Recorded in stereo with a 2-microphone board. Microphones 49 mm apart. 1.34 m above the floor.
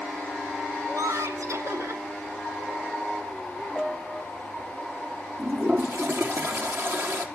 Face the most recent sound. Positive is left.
turn(degrees=-50)  # may be behind; listen again after turning